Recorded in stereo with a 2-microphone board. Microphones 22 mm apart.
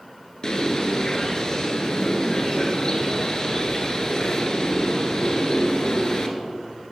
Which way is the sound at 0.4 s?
35° left (ahead or behind).